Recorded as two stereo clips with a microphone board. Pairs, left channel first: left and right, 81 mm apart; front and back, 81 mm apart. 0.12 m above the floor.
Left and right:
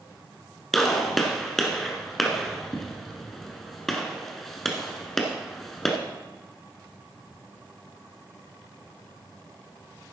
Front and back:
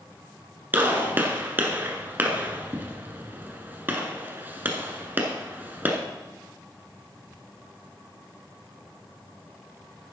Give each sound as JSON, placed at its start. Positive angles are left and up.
{"t": 0.7, "sound": "a gunshot", "azimuth_deg": 175, "distance_m": 1.3}